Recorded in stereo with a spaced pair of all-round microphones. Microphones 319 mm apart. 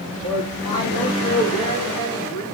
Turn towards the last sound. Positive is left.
turn(degrees=85)